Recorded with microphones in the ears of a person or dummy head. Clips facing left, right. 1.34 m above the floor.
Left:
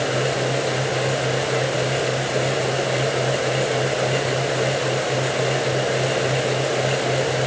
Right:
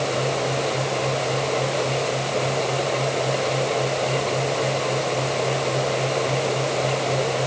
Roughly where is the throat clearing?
No throat clearing in this recording.